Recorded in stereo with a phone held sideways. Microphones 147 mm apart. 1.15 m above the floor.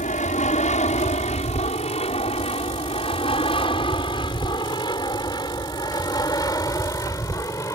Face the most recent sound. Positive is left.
turn(degrees=20)  # may be behind; listen again after turning